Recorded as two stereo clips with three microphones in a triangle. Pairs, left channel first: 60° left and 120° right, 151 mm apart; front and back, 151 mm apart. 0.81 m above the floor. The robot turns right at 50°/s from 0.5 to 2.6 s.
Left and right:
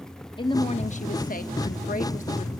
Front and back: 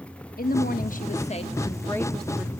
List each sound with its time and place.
0.4 s a woman speaking: straight ahead, 1.1 m; by 2.5 s 105° left, 1.1 m